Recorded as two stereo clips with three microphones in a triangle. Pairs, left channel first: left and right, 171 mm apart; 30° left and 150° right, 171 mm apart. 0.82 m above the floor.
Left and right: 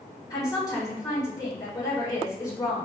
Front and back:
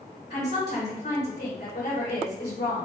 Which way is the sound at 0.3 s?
25° left.